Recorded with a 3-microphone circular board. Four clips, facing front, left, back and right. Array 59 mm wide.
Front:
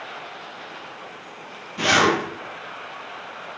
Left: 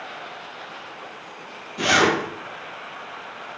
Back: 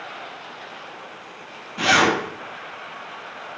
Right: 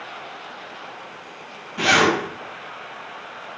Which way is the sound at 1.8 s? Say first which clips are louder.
Right 1 dB, back 1 dB; 90° right.